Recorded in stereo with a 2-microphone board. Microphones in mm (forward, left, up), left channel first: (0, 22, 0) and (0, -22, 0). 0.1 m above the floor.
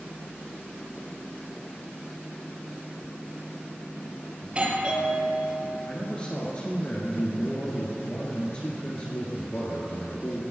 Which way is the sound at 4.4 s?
30° right (ahead or behind).